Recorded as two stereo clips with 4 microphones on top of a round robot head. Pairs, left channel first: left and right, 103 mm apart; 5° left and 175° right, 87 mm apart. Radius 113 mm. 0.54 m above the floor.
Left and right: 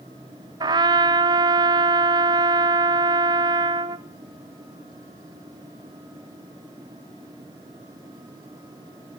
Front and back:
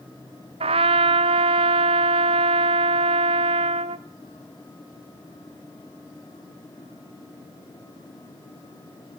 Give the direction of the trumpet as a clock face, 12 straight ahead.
5 o'clock.